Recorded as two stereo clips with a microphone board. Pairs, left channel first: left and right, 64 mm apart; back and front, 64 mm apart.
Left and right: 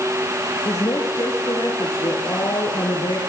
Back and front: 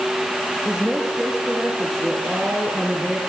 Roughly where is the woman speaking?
Left.